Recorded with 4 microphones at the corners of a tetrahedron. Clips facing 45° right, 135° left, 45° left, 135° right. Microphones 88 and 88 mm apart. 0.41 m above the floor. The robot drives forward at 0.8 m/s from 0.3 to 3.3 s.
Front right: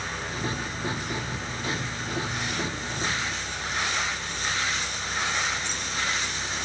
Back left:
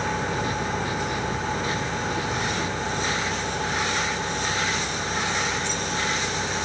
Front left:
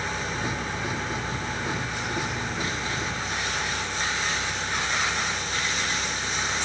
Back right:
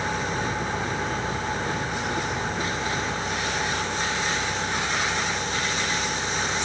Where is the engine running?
155° left; by 6.7 s 160° left.